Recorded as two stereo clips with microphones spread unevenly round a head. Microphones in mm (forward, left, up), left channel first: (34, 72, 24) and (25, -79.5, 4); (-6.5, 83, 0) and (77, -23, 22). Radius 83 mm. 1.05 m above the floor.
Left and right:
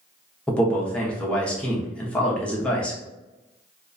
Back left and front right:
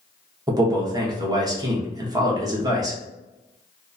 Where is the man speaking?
5° right, 0.8 m.